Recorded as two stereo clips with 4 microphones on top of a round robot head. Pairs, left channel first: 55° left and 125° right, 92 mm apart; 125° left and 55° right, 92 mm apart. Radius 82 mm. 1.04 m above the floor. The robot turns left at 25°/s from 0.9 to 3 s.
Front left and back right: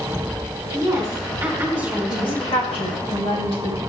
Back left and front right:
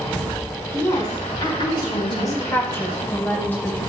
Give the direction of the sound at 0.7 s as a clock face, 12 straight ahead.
6 o'clock.